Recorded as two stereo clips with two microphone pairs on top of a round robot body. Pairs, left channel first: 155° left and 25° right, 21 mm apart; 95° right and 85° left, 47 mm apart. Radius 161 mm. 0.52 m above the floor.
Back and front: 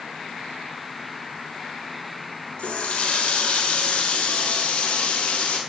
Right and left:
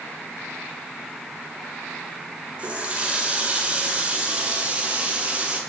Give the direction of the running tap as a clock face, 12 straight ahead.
7 o'clock.